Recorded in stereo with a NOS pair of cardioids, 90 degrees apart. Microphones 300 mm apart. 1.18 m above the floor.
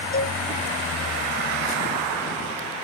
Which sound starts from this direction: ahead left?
A cowbell, at 0.1 s.